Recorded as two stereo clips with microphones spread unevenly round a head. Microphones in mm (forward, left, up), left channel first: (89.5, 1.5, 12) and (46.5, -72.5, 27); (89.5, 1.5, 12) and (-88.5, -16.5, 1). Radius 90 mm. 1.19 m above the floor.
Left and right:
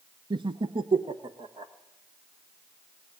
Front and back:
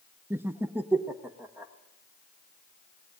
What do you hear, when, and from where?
0.3 s laughter: 100° right, 0.7 m; by 1.7 s 95° right, 2.0 m